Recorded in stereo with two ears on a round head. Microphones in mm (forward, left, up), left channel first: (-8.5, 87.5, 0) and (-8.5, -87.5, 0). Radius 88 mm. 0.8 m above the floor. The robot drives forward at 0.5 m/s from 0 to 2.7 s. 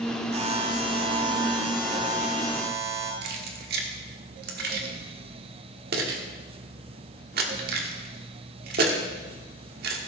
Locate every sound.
0.3 s a buzzer: 35° right (ahead or behind), 1.4 m; by 3.1 s 20° right (ahead or behind), 2.5 m
3.2 s keys jangling: 55° right (ahead or behind), 1.5 m